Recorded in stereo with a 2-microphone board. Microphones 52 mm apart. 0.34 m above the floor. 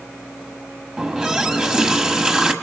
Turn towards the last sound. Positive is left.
turn(degrees=-15)  # may be behind; listen again after turning